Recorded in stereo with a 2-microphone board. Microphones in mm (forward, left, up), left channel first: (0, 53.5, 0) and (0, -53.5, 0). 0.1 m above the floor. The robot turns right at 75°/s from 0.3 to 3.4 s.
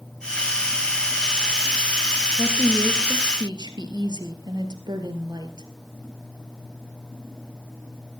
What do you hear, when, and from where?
2.4 s a woman speaking: 170° left, 2 m; by 5.7 s 110° right, 2 m